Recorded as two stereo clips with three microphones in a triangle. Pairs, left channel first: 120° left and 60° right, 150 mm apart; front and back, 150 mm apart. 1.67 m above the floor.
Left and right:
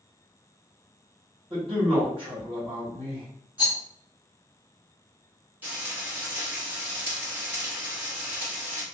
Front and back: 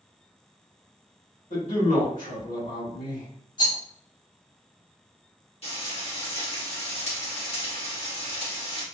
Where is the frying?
10° left, 1.4 m.